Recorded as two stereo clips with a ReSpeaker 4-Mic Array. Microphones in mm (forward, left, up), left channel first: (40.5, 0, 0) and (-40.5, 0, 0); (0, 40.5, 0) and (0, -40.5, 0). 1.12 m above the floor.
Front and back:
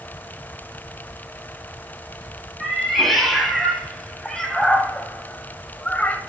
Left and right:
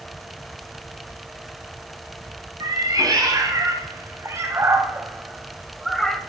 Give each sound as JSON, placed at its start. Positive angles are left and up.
{"t": 2.6, "sound": "a cat meowing", "azimuth_deg": -90, "distance_m": 1.8}